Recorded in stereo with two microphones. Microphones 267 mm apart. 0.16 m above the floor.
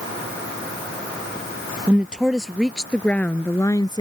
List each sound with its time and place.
1.9 s a woman speaking: 5° right (ahead or behind); by 4.0 s 15° left (ahead or behind)